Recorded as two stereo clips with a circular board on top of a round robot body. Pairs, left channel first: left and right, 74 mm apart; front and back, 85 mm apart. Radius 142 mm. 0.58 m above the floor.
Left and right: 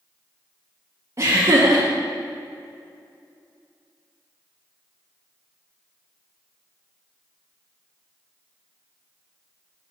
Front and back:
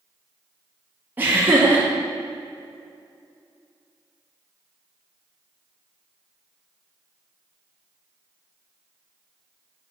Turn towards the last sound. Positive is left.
turn(degrees=-120)